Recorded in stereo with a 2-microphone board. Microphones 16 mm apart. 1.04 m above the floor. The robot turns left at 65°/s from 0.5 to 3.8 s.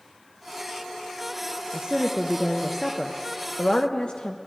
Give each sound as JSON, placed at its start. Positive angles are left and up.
{"t": 1.7, "sound": "a woman speaking", "azimuth_deg": -125, "distance_m": 0.6}